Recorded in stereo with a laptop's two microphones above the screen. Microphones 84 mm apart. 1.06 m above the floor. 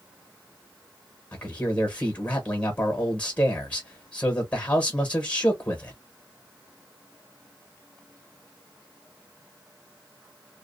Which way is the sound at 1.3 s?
20° left (ahead or behind).